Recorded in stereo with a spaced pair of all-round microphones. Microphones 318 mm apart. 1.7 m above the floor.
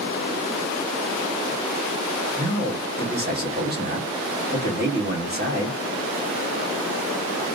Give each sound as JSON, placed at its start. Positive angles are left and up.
{"t": 2.4, "sound": "a man speaking", "side_deg": -30, "distance_m": 1.6}